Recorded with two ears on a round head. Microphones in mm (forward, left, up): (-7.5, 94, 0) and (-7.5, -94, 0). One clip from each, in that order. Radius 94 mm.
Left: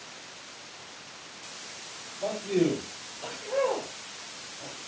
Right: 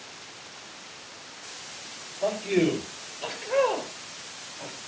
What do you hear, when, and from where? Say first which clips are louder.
2.2 s a man speaking: right 3 dB; 65° right (ahead or behind), 7.5 m; by 4.8 s 60° right (ahead or behind), 6 m